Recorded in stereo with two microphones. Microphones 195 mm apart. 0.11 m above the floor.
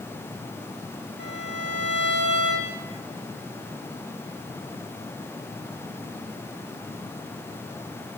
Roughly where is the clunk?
I don't hear a clunk.